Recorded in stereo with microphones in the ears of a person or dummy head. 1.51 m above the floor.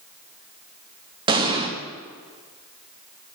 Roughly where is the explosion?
Right.